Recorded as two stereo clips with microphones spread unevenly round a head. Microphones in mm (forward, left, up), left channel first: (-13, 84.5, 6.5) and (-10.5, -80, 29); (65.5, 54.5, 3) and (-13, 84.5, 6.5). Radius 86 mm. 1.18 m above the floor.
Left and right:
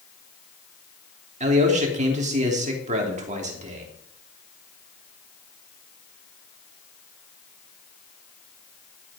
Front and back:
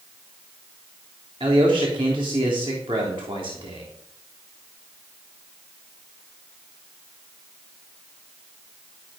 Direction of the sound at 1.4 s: 140° right.